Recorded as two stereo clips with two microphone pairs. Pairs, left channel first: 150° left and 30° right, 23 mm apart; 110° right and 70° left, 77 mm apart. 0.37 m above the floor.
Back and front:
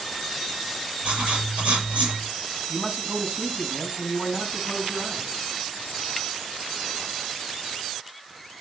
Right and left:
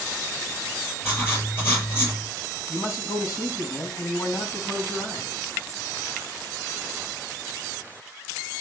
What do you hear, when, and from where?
1.0 s writing: 45° right, 7.5 m
2.7 s a man speaking: 60° right, 3.5 m